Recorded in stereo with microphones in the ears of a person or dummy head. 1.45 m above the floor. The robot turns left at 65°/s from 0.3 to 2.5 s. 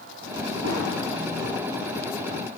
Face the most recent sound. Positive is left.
turn(degrees=130)